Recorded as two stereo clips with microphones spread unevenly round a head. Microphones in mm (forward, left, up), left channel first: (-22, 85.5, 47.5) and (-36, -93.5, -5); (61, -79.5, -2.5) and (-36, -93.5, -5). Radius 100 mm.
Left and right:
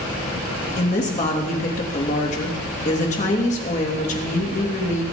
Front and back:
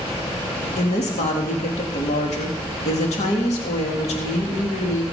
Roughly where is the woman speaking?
Ahead left.